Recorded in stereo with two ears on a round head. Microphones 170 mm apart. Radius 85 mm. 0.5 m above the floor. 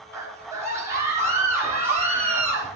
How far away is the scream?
About 6.5 m.